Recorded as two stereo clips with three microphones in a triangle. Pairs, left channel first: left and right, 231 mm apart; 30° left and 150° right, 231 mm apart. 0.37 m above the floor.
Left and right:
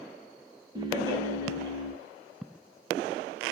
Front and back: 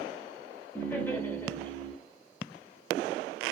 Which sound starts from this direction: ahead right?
Laughter, at 0.8 s.